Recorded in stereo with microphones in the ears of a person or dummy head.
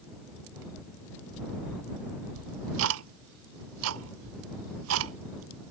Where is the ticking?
80° right.